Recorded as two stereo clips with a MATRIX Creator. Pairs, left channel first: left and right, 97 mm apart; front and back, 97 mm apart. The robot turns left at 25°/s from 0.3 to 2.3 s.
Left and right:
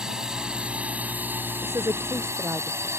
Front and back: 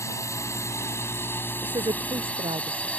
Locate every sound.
0.0 s a drone: 15° right; by 3.0 s 65° right
1.6 s a woman speaking: 140° right; by 2.9 s 160° right